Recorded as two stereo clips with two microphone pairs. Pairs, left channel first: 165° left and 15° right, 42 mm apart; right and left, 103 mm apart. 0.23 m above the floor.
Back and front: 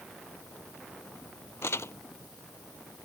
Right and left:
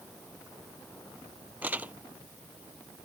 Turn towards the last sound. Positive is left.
turn(degrees=165)